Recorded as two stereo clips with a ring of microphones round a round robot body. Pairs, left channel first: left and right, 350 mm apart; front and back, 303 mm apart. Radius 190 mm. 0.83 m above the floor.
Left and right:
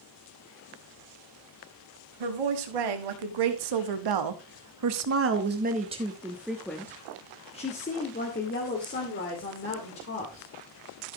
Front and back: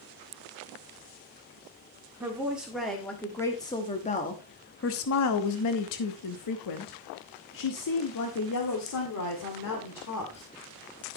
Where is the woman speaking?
95° right, 1.9 m; by 10.4 s 35° left, 3 m.